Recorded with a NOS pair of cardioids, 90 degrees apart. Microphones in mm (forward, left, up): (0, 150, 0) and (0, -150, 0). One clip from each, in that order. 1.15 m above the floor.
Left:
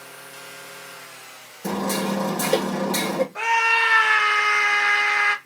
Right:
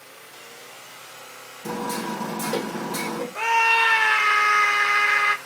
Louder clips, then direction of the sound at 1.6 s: Left 3 dB; 55° left.